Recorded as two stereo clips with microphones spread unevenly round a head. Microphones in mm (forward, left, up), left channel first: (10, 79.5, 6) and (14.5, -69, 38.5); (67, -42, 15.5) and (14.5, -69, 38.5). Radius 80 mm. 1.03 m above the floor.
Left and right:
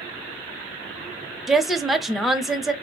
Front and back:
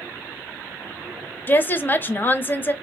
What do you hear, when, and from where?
1.5 s a woman speaking: 10° left, 0.6 m